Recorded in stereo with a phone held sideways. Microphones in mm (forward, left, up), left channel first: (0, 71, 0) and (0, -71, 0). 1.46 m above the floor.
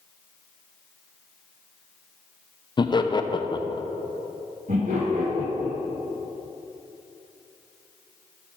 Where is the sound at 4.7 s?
70° right (ahead or behind), 2 m.